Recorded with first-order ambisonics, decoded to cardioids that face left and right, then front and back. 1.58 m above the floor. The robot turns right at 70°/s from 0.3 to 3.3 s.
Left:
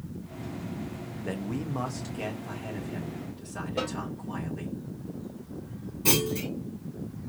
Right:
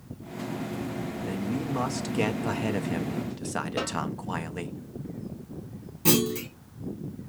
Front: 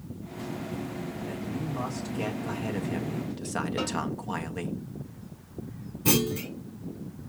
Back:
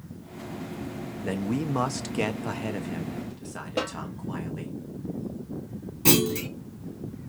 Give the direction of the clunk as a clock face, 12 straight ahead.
5 o'clock.